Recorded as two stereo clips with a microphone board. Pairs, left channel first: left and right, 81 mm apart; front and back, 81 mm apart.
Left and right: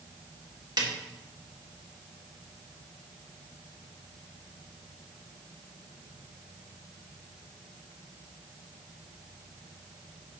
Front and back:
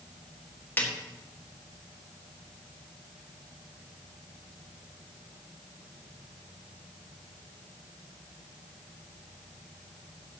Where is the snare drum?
65° right, 1.5 m.